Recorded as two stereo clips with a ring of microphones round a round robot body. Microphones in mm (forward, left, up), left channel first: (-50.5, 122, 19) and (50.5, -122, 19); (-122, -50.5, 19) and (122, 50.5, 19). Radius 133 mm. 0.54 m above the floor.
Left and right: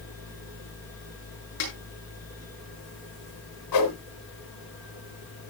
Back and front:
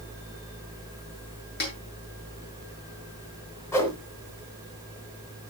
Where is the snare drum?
145° left, 8.5 m.